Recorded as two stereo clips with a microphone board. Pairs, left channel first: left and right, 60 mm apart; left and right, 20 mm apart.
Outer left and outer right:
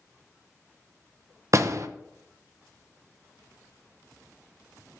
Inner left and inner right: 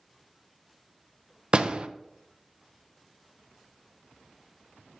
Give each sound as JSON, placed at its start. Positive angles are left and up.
{"t": 1.5, "sound": "a door slam", "side_deg": -55, "distance_m": 0.7}